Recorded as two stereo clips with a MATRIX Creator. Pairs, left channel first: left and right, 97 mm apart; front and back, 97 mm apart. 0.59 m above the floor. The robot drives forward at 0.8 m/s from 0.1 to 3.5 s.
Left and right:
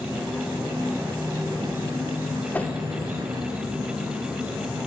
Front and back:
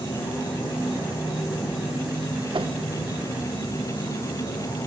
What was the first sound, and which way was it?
An insect, 20° right.